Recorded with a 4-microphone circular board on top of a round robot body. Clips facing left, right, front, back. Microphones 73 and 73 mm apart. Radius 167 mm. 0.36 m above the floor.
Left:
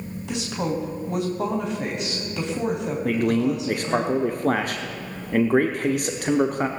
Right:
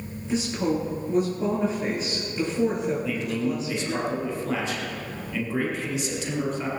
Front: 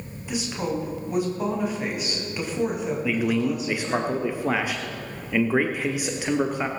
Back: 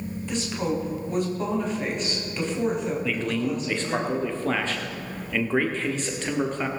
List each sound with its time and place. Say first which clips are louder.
0.3 s a woman speaking: right 2 dB, even; 80° left, 3.5 m
3.0 s a man speaking: left 6 dB, front 3 dB; 75° left, 1.1 m